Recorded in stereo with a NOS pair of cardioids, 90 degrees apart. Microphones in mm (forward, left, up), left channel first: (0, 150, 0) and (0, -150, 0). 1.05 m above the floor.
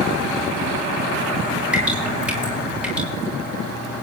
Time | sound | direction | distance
1.7 | dripping | 5° right | 9 m